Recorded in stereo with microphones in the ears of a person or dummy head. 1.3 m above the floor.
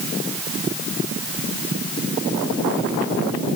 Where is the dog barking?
No dog barking in this recording.